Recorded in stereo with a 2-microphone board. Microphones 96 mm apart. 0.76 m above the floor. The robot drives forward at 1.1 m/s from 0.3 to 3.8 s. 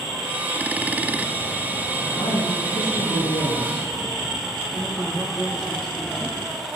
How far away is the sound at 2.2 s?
About 9.5 m.